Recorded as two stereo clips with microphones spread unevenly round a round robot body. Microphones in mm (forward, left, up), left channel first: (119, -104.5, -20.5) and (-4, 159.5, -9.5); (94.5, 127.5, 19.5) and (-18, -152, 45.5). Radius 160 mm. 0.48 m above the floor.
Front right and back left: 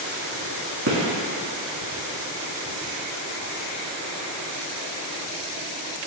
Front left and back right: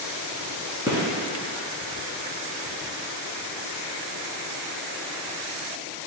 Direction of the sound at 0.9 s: 165° left.